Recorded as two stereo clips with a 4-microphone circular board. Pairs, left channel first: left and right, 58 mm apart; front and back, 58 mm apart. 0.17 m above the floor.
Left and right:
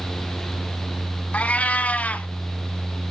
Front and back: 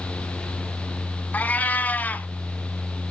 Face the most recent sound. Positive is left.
turn(degrees=40)